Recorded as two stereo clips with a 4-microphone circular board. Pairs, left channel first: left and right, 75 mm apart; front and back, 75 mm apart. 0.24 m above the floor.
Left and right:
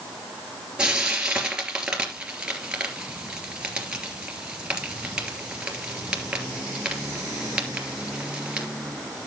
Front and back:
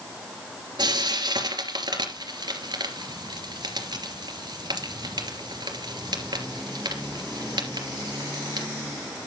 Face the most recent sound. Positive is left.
turn(degrees=-170)